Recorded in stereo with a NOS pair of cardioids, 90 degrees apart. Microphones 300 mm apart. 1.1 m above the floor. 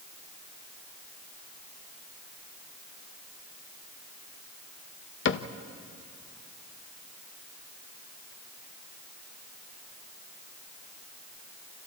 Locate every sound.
5.2 s a cupboard door: 40° left, 1.0 m